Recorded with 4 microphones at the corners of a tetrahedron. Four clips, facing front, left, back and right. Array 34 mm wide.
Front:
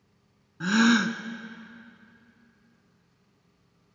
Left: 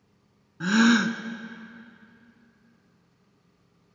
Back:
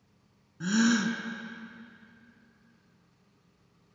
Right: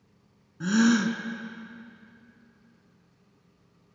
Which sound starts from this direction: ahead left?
A gasp, at 0.6 s.